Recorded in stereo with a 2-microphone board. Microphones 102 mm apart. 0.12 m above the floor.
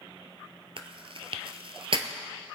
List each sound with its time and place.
0.8 s chewing: 60° right (ahead or behind), 0.9 m